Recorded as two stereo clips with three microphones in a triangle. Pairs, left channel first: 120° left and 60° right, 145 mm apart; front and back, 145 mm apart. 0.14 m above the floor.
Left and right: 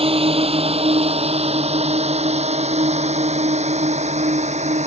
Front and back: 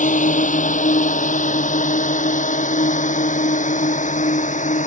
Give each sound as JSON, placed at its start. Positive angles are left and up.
{"t": 0.0, "sound": "a drone", "azimuth_deg": -15}